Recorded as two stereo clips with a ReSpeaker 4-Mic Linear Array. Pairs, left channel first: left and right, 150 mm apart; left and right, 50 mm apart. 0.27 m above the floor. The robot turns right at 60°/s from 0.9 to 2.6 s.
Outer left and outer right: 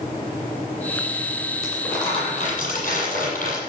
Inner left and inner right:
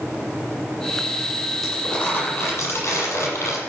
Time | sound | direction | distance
1.6 | crumpling | centre (ahead or behind) | 8.5 m